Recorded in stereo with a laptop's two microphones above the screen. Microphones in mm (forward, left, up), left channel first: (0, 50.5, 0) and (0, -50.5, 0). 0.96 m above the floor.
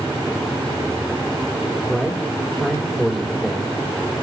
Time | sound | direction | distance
1.9 | a man speaking | 5° left (ahead or behind) | 3 m